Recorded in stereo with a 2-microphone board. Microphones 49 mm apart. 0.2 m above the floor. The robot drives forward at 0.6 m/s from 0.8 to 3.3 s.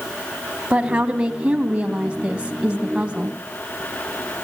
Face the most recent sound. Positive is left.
turn(degrees=-20)  # may be behind; listen again after turning